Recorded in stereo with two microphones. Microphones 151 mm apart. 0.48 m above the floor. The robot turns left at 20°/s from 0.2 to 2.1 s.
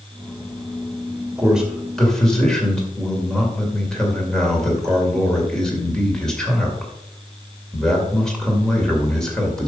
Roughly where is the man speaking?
Centre.